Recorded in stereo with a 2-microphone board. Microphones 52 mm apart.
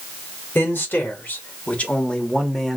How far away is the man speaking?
About 1.8 m.